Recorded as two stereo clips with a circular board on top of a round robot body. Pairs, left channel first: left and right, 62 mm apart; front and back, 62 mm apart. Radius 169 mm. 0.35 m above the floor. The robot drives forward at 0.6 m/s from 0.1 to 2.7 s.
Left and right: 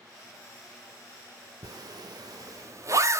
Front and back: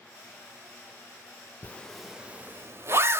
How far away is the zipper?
About 0.6 m.